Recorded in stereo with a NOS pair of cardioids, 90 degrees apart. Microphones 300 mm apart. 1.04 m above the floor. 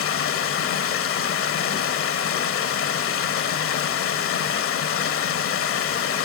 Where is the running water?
45° left, 1.0 m.